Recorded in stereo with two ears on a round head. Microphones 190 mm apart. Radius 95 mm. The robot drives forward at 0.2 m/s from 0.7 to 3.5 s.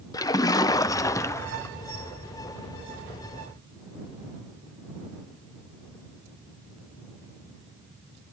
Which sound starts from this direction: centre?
A splash, at 0.1 s.